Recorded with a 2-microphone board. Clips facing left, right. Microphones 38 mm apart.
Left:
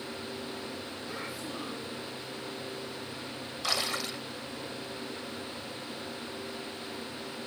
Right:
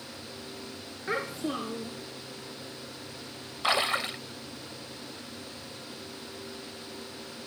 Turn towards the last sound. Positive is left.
turn(degrees=-35)  # may be behind; listen again after turning